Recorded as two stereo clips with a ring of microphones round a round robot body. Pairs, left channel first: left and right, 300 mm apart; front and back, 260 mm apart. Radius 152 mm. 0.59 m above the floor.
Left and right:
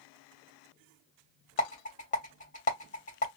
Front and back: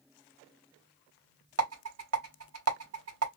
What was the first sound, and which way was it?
A rattle, 155° left.